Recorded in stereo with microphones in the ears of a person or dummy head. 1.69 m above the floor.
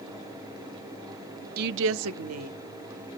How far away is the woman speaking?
About 0.5 m.